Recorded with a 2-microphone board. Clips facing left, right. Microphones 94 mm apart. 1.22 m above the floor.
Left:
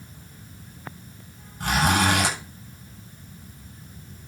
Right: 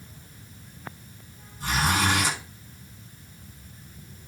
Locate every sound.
1.6 s a zipper: 70° left (ahead or behind), 8 m